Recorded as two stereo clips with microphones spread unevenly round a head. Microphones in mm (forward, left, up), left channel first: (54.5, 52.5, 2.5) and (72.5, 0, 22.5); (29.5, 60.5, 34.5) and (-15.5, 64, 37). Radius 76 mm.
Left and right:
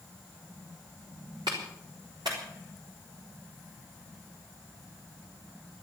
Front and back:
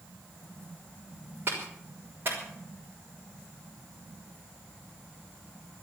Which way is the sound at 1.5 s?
120° right.